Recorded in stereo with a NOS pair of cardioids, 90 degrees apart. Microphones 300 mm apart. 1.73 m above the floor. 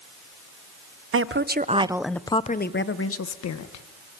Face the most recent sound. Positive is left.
turn(degrees=65)